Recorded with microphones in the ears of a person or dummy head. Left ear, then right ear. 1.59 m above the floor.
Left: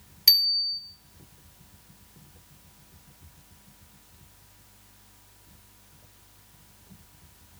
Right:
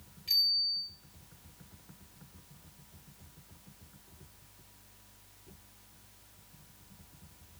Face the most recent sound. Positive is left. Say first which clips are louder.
# left 7 dB
turn(degrees=60)  # may be behind; listen again after turning